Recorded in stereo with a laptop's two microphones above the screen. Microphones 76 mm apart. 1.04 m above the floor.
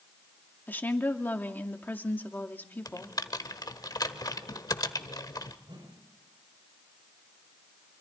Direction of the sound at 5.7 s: 85° right.